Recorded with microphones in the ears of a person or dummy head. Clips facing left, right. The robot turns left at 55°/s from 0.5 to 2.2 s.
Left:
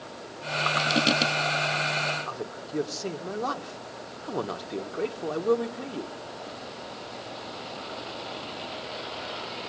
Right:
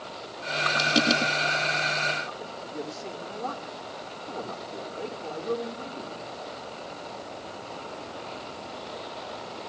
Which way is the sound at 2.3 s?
80° left.